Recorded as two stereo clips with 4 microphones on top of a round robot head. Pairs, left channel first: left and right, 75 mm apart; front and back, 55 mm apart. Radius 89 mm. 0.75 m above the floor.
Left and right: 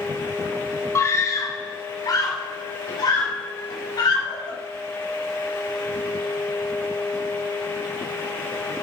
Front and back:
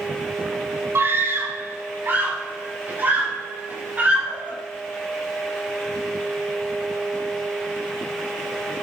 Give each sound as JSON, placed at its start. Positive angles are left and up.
{"t": 0.9, "sound": "a scream", "azimuth_deg": 140, "distance_m": 1.8}